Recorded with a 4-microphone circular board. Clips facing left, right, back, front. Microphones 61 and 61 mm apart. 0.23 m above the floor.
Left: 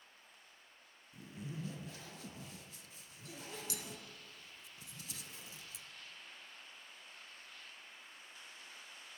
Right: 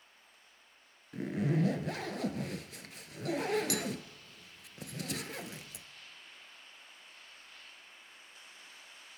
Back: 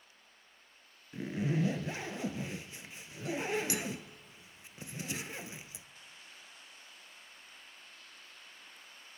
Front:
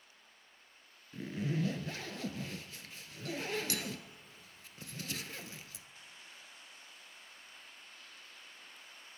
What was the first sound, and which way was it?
A zipper, 110° right.